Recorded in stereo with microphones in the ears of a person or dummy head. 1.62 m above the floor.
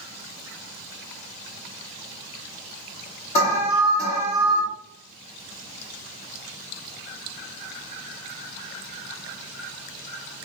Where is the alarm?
40° left (ahead or behind), 2 m.